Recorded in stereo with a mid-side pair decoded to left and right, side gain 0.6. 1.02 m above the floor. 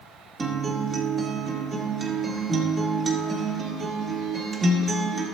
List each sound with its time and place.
0.4 s a guitar: 30° right, 1.9 m